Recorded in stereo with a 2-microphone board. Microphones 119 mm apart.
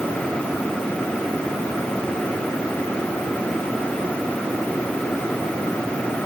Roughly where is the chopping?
I don't hear chopping.